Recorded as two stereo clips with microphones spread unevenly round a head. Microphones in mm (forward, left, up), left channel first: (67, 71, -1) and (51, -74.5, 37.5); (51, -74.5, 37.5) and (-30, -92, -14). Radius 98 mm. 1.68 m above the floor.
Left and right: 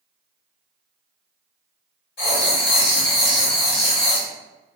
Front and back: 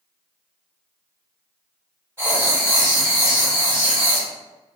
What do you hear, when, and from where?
2.2 s writing: 115° left, 0.8 m